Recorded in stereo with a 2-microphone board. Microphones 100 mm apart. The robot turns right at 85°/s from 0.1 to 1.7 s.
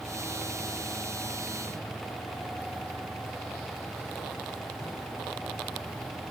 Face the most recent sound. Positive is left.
No sound to turn to.